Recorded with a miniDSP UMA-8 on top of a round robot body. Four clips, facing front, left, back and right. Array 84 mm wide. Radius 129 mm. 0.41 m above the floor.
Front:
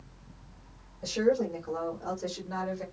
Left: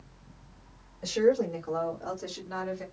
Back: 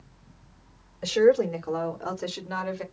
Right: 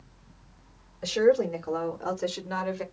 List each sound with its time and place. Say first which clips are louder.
1.0 s a woman speaking: right 2 dB, back 7 dB; 155° right, 2 m; by 2.8 s 130° right, 1.5 m